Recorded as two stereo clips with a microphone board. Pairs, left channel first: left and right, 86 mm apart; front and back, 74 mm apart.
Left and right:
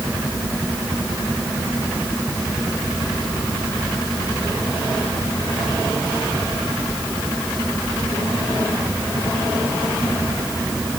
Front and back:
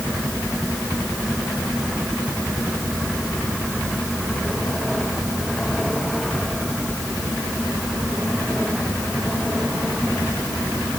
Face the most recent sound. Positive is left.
No sound to turn to.